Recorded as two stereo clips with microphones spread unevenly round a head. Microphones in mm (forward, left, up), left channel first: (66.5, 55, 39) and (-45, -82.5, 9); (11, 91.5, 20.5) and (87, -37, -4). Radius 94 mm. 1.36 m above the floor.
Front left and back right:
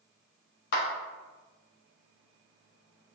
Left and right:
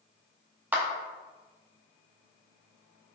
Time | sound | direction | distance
0.7 | a clap | 20° left | 0.7 m